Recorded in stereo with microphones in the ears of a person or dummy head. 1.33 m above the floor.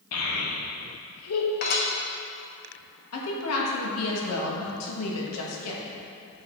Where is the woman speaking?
85° left, 1.4 m.